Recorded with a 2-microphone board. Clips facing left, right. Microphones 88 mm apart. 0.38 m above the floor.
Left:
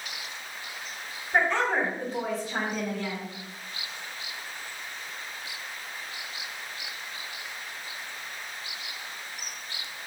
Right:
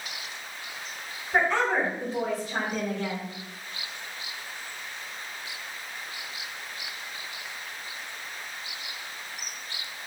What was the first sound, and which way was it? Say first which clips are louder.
A woman speaking: right 1 dB; 5° right (ahead or behind).